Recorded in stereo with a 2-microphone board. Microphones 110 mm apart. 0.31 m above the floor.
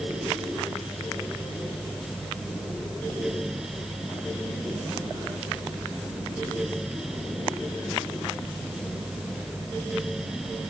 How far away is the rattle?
I don't hear a rattle.